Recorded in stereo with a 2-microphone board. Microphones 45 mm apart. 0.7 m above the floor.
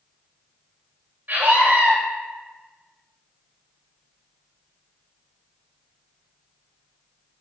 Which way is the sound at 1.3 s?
45° right (ahead or behind).